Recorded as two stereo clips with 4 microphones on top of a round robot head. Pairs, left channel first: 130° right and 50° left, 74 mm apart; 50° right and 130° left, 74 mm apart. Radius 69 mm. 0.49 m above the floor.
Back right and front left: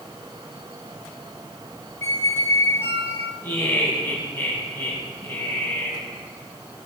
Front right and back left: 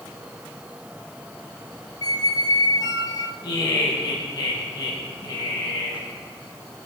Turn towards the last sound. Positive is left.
turn(degrees=-85)